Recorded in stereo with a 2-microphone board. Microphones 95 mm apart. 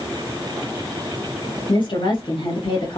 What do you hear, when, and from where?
1.7 s a woman speaking: 60° left (ahead or behind), 0.9 m